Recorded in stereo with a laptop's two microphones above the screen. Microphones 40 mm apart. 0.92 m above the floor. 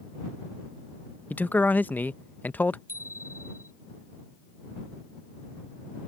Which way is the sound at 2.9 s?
85° right.